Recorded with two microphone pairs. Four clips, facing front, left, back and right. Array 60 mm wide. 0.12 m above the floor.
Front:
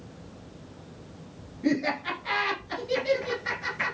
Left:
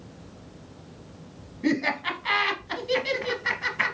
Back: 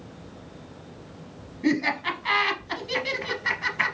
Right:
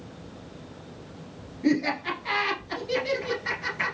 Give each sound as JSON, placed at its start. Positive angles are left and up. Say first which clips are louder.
{"t": 1.6, "sound": "laughter", "louder": "right 1 dB, back 2 dB", "azimuth_deg": 135, "distance_m": 1.4}